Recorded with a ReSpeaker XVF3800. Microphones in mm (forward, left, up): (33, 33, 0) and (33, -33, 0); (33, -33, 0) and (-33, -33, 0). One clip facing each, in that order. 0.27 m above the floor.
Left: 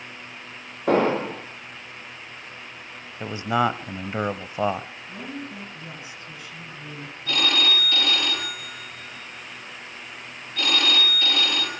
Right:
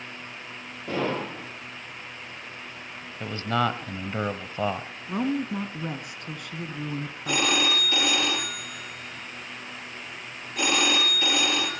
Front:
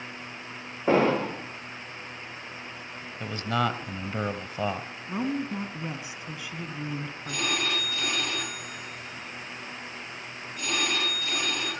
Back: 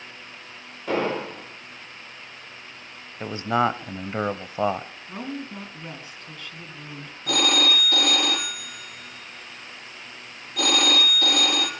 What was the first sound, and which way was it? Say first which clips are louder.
An explosion: left 8 dB, front 3 dB; 60° left.